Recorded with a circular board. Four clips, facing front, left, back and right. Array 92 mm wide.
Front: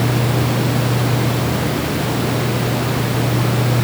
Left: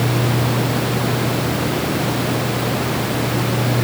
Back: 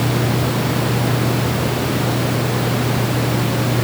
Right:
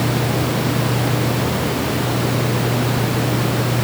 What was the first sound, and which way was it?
Only background noise.